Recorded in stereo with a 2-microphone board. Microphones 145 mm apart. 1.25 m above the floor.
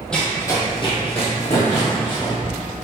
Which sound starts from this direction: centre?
Running footsteps, at 0.1 s.